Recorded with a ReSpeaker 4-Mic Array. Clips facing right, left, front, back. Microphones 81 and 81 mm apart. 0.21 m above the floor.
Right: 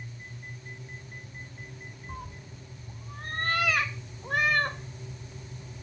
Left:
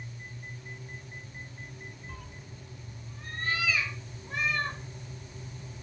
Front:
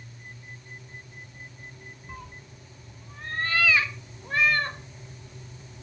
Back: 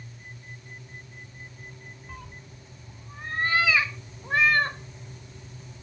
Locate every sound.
2.1 s a cat meowing: 75° right, 0.7 m; by 4.8 s 115° right, 2.0 m